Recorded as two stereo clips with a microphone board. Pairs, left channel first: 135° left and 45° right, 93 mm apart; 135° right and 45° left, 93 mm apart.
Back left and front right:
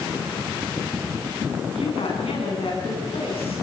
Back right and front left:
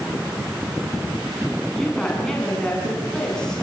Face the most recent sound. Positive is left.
turn(degrees=140)